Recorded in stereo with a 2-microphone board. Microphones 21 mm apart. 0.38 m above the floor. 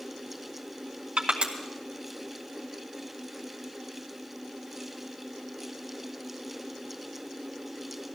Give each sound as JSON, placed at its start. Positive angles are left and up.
{"t": 1.2, "sound": "crushing", "side_deg": -65, "distance_m": 3.0}